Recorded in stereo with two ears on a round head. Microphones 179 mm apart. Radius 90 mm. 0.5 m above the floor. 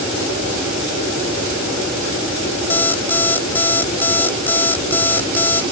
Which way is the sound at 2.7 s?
10° left (ahead or behind).